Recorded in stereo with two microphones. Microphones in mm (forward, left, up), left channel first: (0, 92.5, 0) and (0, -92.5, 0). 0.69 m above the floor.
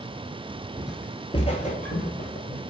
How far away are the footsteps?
About 0.6 m.